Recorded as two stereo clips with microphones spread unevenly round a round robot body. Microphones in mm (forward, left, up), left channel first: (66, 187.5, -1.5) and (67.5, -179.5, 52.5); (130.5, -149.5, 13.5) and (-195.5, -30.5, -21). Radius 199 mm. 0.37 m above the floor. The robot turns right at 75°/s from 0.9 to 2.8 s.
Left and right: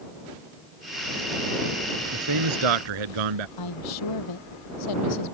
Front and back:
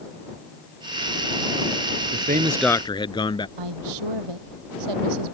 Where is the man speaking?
150° right; by 3.5 s 95° right.